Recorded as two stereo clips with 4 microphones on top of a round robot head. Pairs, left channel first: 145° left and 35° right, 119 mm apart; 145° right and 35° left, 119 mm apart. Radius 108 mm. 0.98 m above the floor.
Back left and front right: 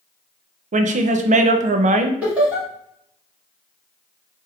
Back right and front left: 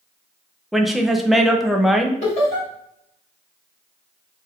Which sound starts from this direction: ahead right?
A woman speaking, at 0.7 s.